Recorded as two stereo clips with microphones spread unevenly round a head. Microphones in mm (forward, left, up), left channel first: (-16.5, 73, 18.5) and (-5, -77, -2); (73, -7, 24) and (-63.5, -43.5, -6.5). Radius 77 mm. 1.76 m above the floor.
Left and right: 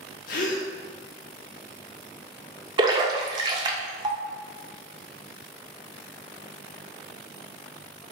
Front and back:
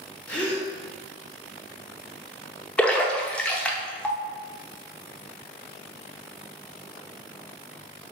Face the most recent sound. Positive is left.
turn(degrees=-35)